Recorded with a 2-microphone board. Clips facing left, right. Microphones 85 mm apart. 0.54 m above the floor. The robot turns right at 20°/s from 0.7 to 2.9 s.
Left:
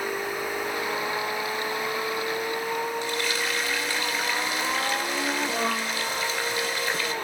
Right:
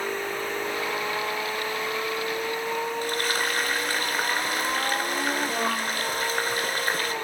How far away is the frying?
About 2.5 m.